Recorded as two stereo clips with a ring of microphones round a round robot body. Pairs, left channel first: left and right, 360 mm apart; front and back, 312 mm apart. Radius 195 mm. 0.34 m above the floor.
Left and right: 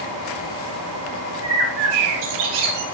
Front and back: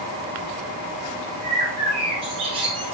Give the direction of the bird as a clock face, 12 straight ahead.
3 o'clock.